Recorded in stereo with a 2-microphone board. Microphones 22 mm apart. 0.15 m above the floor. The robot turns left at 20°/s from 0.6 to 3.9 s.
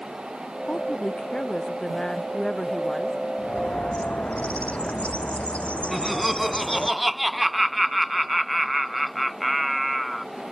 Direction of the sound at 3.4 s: 75° left (ahead or behind).